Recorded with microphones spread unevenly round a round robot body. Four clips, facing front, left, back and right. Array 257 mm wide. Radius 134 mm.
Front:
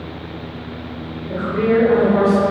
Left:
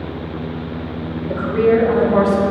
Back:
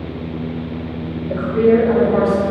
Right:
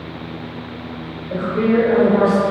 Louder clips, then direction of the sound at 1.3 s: Left 2 dB, back 3 dB; 95° left.